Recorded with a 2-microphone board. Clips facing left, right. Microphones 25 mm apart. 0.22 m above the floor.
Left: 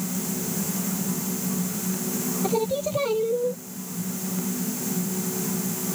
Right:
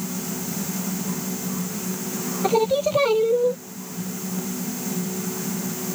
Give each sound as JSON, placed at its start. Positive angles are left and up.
{"t": 2.4, "sound": "singing", "side_deg": -25}